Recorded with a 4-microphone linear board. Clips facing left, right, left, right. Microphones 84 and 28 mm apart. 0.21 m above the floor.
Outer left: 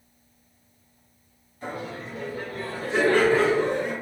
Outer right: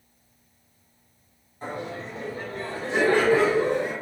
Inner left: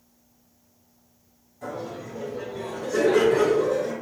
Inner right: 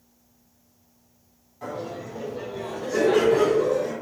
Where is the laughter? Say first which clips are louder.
Outer right 1 dB, inner right 1 dB; 35° right (ahead or behind), 1.4 m; by 3.9 s 5° right (ahead or behind), 1.3 m.